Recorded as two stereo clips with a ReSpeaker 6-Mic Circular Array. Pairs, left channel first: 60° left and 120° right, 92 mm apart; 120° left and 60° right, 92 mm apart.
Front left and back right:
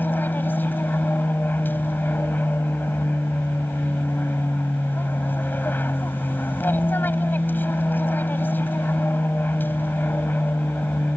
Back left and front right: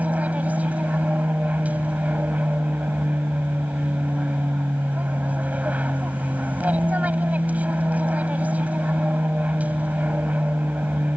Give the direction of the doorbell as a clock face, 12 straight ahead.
I don't hear a doorbell.